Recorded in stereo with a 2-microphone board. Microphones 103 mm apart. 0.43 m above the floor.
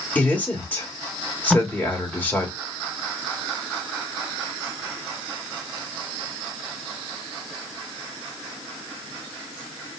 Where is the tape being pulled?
Centre (ahead or behind), 0.5 m.